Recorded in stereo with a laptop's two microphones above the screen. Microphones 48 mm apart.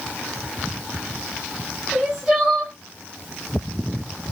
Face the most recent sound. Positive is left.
turn(degrees=-20)  # may be behind; listen again after turning